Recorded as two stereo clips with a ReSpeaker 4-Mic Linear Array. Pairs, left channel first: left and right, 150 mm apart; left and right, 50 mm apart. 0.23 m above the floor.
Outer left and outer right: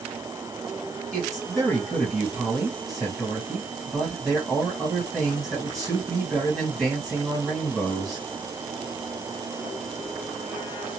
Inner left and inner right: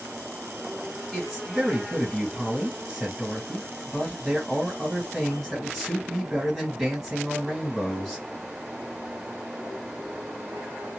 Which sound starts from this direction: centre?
A man speaking, at 1.1 s.